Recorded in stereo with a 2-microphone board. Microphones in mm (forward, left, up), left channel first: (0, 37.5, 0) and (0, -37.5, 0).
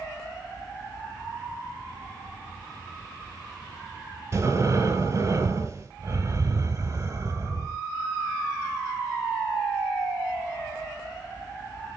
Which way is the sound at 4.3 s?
40° right (ahead or behind).